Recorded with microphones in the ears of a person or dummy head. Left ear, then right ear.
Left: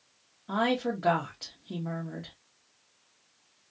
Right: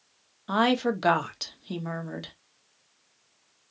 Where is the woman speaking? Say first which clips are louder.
Right 4 dB; 75° right (ahead or behind), 0.8 m.